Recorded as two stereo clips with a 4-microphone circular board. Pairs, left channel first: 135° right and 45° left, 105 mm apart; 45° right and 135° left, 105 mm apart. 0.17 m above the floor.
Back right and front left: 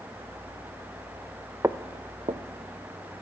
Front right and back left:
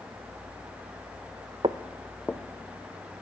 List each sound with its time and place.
1.6 s footsteps: 110° left, 0.5 m; by 3.2 s 10° left, 2 m